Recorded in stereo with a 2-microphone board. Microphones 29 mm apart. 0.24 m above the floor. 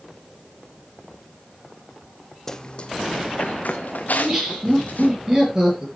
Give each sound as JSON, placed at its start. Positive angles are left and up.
{"t": 2.5, "sound": "running footsteps", "side_deg": 15, "distance_m": 0.8}
{"t": 4.1, "sound": "laughter", "side_deg": -25, "distance_m": 6.0}